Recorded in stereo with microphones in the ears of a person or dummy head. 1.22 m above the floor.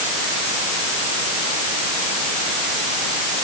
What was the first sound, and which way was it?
Only background noise.